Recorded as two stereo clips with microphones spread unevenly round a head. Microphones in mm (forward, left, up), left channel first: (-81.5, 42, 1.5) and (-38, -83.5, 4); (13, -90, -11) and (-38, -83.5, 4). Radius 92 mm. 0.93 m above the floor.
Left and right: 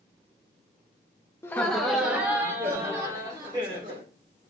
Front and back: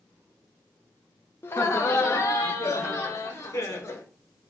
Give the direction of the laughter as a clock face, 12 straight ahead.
11 o'clock.